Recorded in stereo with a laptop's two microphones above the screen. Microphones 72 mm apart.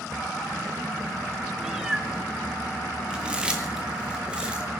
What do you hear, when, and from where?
1.6 s a cat meowing: 5° right (ahead or behind), 2.5 m
3.1 s chewing: 15° right (ahead or behind), 2 m